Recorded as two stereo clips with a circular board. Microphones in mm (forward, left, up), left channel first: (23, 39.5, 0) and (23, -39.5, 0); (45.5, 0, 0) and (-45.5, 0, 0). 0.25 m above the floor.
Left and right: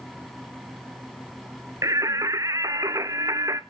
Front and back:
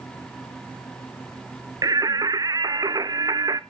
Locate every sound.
1.8 s singing: 135° right, 0.7 m